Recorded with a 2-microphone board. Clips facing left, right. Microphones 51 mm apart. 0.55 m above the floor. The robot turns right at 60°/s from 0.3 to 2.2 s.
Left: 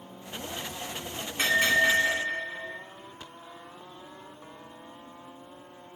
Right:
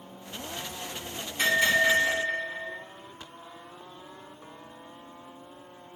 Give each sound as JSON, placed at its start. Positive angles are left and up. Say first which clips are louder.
{"t": 1.4, "sound": "a bell", "louder": "even", "azimuth_deg": 50, "distance_m": 1.9}